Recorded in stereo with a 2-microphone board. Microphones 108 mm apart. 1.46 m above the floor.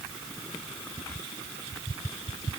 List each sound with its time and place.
Only background noise.